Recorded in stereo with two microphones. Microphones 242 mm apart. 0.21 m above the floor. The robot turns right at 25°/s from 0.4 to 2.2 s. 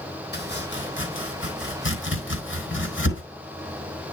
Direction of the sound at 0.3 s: 50° left (ahead or behind).